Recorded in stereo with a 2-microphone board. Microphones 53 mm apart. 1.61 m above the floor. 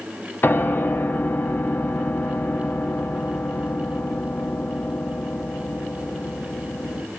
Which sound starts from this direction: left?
A piano, at 0.4 s.